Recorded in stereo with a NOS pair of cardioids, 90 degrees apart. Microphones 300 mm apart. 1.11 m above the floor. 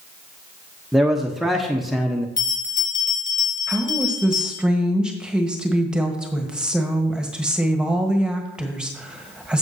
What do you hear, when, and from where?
0.9 s a man speaking: straight ahead, 0.9 m
2.4 s a bell: 35° left, 2.5 m
3.7 s a woman speaking: 5° right, 1.3 m